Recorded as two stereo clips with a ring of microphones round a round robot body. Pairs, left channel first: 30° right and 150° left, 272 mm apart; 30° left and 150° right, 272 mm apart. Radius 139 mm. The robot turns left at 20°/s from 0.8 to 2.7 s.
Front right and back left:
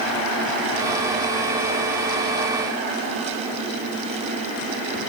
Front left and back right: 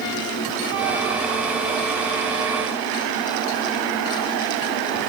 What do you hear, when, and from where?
Only background noise.